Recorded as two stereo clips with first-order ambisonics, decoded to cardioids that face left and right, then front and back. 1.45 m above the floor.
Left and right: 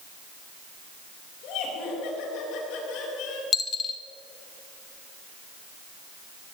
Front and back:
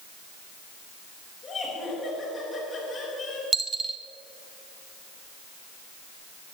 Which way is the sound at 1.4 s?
65° left.